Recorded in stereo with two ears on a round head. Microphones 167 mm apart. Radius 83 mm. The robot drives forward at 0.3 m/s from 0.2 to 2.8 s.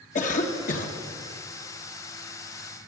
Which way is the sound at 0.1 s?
45° left (ahead or behind).